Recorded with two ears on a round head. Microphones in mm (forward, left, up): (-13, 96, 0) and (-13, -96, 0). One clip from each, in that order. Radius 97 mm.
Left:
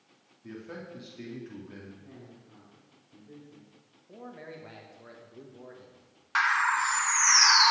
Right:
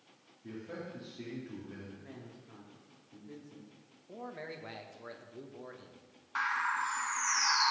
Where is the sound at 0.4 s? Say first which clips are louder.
Left 1 dB; 30° left (ahead or behind), 2.5 m.